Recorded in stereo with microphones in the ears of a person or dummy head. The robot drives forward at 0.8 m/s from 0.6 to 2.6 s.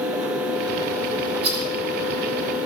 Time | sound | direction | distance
1.4 | a rattle | 90° right | 7 m